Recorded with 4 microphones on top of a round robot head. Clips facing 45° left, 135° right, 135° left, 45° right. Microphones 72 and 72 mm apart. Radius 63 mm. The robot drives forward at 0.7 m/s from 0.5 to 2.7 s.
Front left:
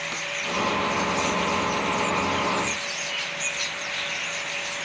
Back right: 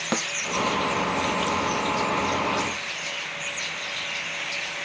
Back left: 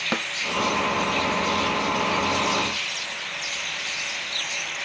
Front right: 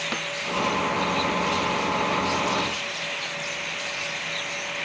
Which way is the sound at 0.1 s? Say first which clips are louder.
Back right 6 dB, back left 6 dB; 160° right.